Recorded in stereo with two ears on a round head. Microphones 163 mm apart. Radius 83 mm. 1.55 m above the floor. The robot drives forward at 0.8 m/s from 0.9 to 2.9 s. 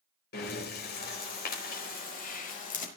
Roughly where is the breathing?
Left.